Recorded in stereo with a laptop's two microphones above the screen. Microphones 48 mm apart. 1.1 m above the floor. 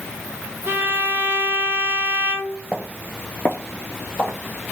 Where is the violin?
45° right (ahead or behind), 1.1 m.